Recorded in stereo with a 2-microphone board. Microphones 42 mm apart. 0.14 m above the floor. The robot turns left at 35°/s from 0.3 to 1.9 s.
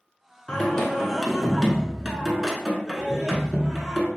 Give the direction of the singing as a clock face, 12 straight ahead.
11 o'clock.